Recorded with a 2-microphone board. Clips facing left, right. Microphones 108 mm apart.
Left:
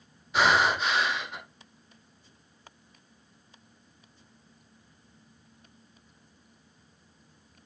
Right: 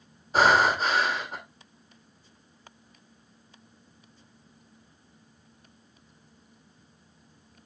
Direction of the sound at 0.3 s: 40° right (ahead or behind).